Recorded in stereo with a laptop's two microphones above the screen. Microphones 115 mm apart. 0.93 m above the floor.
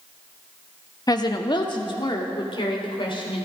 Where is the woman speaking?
35° left (ahead or behind), 1.1 m; by 3.5 s 50° left (ahead or behind), 4 m.